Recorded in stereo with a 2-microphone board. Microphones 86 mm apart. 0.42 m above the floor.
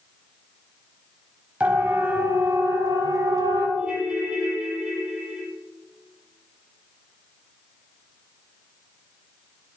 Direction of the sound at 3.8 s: 10° right (ahead or behind).